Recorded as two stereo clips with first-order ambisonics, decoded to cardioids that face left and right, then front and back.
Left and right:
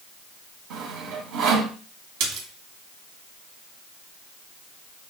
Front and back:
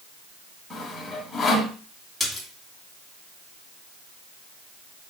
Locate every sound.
0.7 s sawing: 80° right, 2 m
2.2 s a splash: 95° right, 2.5 m